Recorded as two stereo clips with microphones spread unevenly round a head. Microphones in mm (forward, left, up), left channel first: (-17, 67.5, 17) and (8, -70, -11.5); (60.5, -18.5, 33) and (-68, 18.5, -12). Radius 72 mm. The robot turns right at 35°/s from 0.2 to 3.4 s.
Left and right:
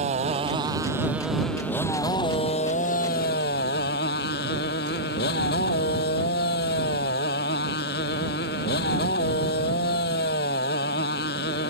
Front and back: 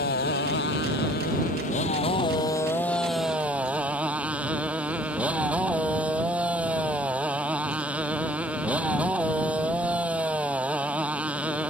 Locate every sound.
0.0 s a motorcycle: 30° right; by 11.7 s 80° left